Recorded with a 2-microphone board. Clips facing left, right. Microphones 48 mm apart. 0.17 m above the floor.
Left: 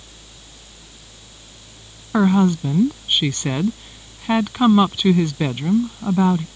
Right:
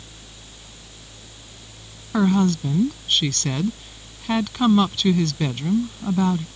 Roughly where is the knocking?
No knocking in this recording.